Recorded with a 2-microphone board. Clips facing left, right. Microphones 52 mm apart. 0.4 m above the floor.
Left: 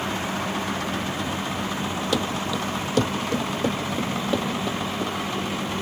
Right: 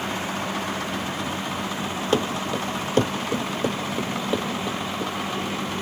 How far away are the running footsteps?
About 0.6 m.